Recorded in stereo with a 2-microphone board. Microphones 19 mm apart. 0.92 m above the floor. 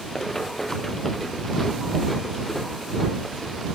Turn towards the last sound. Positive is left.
turn(degrees=5)  # may be behind; listen again after turning